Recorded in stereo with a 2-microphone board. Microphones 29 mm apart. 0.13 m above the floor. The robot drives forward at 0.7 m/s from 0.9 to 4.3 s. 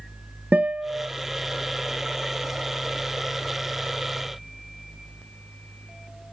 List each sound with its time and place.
0.5 s a guitar: 65° right (ahead or behind), 1.0 m